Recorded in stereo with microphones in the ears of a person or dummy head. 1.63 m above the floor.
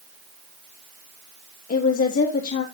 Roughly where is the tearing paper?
No tearing paper in this recording.